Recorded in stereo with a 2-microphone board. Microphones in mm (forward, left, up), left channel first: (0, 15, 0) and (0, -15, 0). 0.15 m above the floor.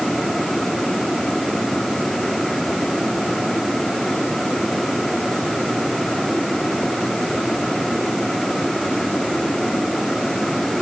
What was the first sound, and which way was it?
Only background noise.